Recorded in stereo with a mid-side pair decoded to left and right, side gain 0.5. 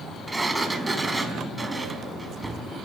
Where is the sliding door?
15° right, 3.5 m.